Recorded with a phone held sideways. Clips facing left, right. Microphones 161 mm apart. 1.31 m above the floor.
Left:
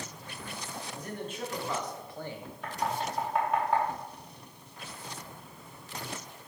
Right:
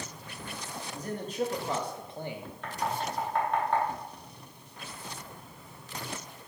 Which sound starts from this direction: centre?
Knocking, at 2.6 s.